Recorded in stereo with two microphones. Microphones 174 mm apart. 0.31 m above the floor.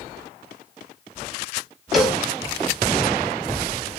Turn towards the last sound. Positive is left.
turn(degrees=0)  # may be behind; listen again after turning